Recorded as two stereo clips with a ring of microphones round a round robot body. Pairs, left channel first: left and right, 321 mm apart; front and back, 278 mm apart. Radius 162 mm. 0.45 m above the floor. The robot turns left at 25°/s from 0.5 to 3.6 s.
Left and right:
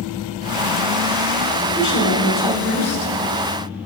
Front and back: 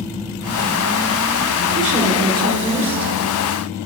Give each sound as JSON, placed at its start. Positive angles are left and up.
{"t": 1.8, "sound": "a woman speaking", "azimuth_deg": 130, "distance_m": 1.5}